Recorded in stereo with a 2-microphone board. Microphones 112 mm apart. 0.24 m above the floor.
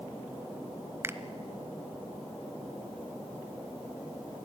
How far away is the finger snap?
About 1.0 m.